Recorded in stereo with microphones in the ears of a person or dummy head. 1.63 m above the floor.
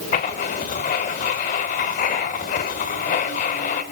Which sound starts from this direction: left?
Writing, at 0.1 s.